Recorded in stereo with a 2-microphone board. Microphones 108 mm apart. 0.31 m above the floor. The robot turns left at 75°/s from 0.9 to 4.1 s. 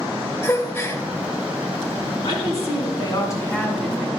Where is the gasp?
25° left (ahead or behind), 0.8 m; by 1.0 s 20° left (ahead or behind), 0.8 m.